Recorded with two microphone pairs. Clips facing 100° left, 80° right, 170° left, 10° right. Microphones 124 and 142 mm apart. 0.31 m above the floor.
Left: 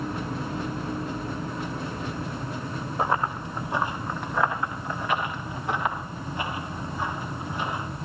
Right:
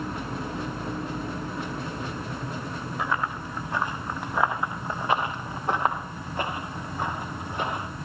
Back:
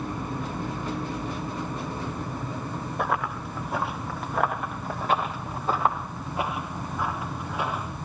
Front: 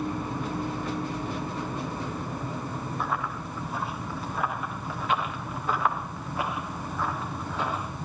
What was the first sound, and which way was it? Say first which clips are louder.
Running footsteps: left 4 dB, back 5 dB; 155° left.